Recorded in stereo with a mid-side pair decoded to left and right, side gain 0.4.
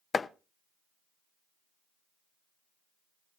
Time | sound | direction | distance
0.1 | chopping | 40° left | 0.7 m